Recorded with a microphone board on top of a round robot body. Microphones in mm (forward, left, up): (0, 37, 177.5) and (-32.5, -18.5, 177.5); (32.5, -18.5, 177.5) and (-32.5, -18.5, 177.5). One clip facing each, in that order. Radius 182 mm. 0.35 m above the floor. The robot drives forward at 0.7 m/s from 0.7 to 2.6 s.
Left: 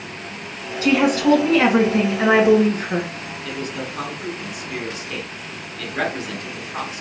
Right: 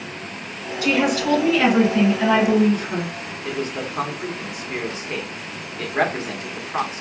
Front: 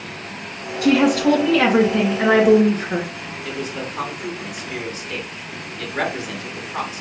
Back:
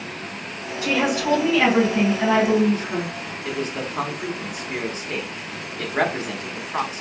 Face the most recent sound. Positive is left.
turn(degrees=-155)